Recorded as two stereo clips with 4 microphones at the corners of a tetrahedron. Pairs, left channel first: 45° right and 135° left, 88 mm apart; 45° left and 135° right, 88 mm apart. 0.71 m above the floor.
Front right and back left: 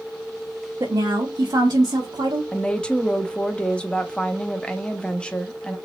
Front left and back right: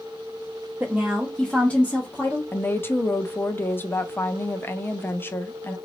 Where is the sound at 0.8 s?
160° left, 0.9 m; by 2.4 s 100° left, 1.3 m.